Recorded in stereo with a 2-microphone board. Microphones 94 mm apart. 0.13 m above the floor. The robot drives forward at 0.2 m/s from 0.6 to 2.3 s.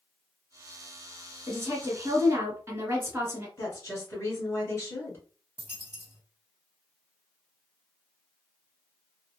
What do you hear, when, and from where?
1.5 s a woman speaking: 30° right (ahead or behind), 1.2 m
3.6 s a woman speaking: 25° left (ahead or behind), 1.5 m
5.6 s a dropped coin: 20° left (ahead or behind), 1.5 m